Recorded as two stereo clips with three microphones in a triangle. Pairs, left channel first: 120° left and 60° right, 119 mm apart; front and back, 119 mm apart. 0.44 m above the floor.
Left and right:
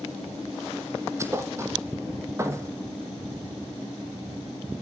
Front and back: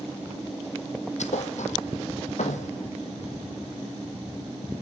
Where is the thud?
5° left, 2.5 m.